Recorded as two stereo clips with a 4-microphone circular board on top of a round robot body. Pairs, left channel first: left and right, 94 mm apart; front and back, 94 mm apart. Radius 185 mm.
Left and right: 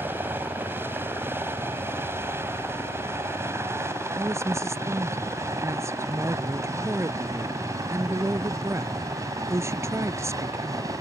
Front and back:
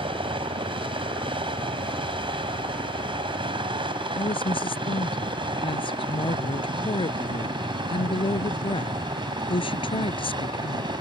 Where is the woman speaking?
30° right.